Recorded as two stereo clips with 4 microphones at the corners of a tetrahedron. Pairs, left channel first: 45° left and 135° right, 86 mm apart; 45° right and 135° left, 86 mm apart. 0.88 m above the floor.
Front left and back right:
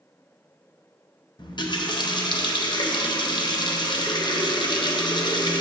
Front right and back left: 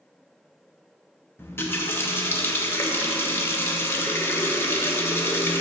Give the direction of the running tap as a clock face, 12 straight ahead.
11 o'clock.